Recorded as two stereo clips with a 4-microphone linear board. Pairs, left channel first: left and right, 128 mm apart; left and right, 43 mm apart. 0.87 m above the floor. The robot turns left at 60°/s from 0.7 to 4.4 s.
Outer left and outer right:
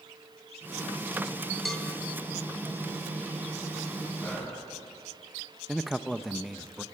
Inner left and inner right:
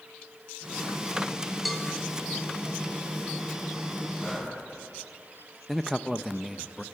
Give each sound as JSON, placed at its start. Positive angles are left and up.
{"t": 1.6, "sound": "a cowbell", "side_deg": 0, "distance_m": 2.5}
{"t": 4.2, "sound": "breathing", "side_deg": 15, "distance_m": 5.0}
{"t": 5.7, "sound": "a man speaking", "side_deg": 0, "distance_m": 0.7}